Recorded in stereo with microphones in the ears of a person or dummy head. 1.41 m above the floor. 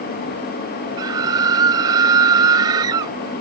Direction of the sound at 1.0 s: 20° right (ahead or behind).